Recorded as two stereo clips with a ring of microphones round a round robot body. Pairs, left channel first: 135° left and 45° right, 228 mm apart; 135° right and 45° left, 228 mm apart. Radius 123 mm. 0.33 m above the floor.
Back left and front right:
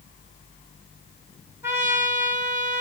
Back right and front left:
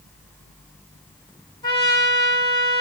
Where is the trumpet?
110° right, 1.5 m.